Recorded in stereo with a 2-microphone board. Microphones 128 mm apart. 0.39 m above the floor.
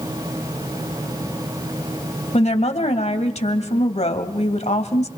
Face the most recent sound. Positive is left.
turn(degrees=60)  # may be behind; listen again after turning